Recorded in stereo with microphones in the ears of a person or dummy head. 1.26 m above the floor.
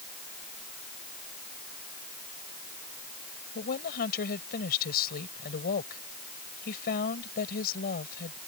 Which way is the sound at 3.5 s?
50° left (ahead or behind).